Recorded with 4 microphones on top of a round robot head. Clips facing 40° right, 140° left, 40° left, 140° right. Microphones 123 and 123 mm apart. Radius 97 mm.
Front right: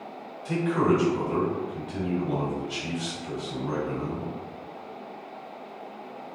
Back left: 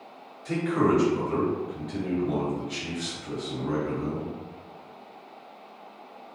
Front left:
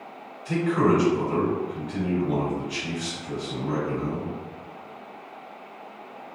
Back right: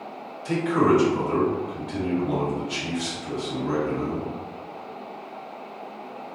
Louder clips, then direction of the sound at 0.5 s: Even, back right 1 dB; 125° right.